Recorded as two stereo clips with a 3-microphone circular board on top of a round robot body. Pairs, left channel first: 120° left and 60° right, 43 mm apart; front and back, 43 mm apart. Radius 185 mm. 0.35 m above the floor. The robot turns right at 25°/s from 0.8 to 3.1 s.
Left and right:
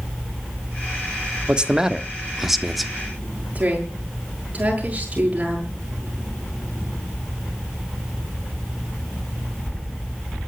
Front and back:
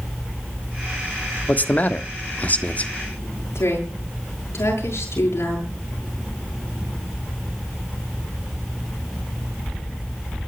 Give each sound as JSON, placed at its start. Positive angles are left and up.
{"t": 1.5, "sound": "a man speaking", "azimuth_deg": -5, "distance_m": 1.7}
{"t": 3.5, "sound": "a woman speaking", "azimuth_deg": 0, "distance_m": 8.5}